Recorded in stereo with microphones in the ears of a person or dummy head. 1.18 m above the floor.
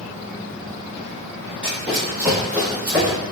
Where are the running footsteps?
10° right (ahead or behind), 2.0 m.